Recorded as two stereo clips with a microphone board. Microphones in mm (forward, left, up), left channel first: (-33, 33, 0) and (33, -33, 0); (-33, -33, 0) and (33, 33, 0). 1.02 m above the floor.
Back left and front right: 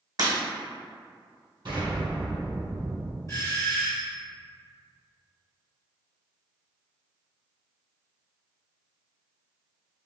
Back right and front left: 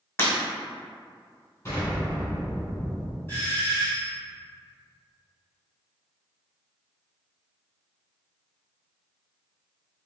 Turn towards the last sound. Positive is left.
turn(degrees=170)